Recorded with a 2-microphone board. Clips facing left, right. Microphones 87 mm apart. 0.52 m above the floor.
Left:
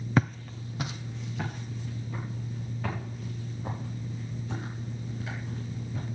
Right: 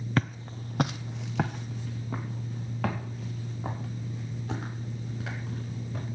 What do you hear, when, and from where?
0.2 s footsteps: 15° left (ahead or behind), 0.6 m; by 6.0 s 80° right, 8 m